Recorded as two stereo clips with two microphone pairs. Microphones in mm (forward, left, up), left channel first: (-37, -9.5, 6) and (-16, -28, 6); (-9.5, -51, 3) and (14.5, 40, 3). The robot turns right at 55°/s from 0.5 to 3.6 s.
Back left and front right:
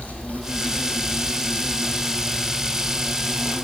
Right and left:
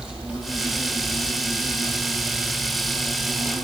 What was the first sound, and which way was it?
An insect, 160° left.